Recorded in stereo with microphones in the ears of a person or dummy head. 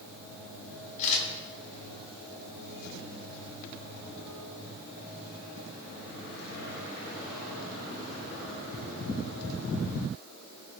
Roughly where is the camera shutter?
Left.